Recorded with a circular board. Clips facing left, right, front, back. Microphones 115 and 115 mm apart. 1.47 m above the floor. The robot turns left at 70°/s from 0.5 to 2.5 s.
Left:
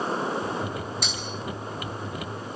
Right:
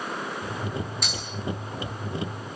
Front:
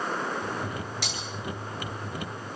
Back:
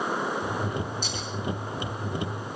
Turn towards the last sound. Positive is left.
turn(degrees=-105)